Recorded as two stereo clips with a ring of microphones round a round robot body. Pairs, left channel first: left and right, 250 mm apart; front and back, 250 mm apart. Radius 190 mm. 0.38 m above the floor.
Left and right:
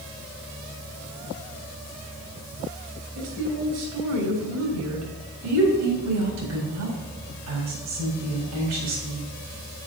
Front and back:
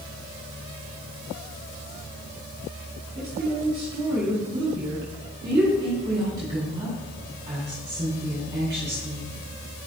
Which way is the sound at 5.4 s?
100° right.